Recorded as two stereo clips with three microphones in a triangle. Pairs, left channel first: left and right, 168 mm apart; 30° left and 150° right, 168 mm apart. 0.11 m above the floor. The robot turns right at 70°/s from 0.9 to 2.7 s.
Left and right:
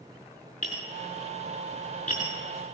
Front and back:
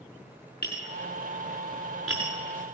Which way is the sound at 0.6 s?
40° left.